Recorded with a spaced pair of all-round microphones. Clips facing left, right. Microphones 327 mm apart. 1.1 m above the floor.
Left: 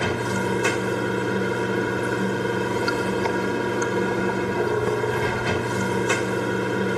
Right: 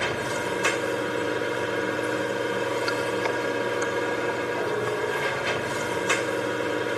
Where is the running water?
55° left (ahead or behind), 1.0 m.